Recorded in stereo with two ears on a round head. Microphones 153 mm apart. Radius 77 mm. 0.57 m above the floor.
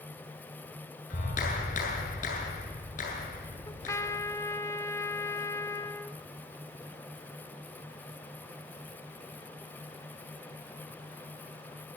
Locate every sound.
1.1 s a clap: 45° left (ahead or behind), 8 m
3.7 s a trumpet: 15° left (ahead or behind), 1.4 m